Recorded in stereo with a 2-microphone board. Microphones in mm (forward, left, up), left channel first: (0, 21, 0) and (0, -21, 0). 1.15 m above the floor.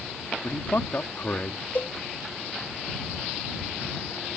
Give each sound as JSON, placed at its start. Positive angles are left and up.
{"t": 0.4, "sound": "a man speaking", "side_deg": 55}
{"t": 1.8, "sound": "a cowbell", "side_deg": 55}